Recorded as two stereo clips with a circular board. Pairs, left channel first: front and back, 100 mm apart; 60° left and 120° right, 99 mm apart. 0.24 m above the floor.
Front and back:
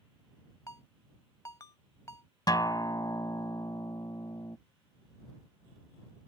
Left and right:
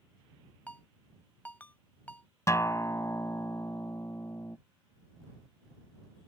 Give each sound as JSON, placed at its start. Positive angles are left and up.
{"t": 0.7, "sound": "a ringtone", "azimuth_deg": 5}
{"t": 2.5, "sound": "a guitar", "azimuth_deg": 20}